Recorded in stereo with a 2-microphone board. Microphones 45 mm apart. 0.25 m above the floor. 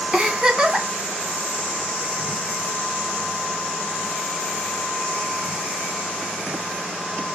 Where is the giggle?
15° right (ahead or behind), 2.5 m.